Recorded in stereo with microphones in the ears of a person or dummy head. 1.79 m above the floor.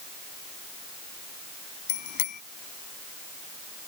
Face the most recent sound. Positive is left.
turn(degrees=60)  # may be behind; listen again after turning